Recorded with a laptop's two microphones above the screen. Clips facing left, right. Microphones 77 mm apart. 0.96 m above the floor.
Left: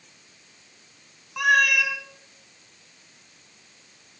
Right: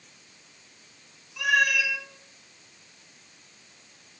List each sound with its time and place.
1.4 s a cat meowing: 65° left (ahead or behind), 1.6 m